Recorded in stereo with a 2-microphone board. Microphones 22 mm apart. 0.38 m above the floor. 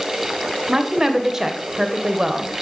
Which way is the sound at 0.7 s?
25° right (ahead or behind).